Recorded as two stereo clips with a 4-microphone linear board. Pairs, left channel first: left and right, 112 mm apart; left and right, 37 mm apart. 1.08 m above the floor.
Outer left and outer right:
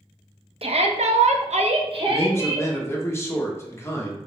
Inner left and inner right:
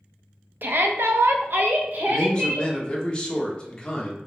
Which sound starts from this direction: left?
A man speaking, at 2.1 s.